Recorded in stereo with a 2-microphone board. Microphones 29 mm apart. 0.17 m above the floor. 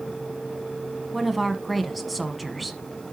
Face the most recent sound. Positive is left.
turn(degrees=0)  # may be behind; listen again after turning